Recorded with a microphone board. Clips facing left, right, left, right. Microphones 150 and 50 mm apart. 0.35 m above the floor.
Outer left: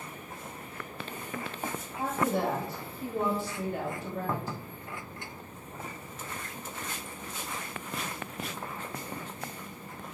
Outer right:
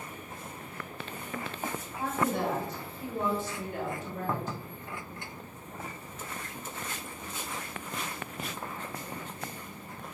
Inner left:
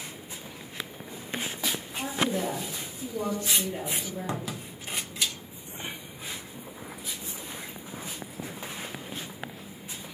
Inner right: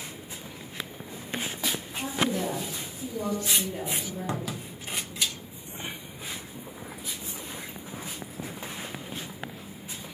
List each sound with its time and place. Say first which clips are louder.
2.0 s a woman speaking: outer left 1 dB, even; 35° left (ahead or behind), 1.5 m